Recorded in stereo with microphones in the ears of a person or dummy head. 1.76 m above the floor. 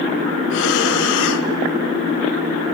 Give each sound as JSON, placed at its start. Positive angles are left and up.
{"t": 0.5, "sound": "breathing", "side_deg": 80, "distance_m": 1.0}